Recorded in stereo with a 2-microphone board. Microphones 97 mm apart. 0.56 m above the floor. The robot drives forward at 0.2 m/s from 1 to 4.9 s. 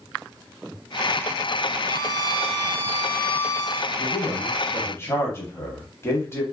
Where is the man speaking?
25° left (ahead or behind), 1.1 m.